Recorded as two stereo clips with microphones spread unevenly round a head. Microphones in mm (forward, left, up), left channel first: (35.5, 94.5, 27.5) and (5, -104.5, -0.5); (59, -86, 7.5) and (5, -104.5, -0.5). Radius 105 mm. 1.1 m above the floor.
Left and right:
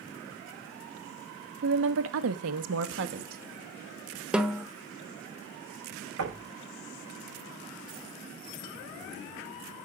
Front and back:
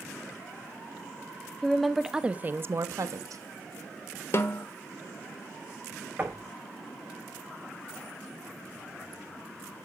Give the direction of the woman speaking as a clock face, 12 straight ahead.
2 o'clock.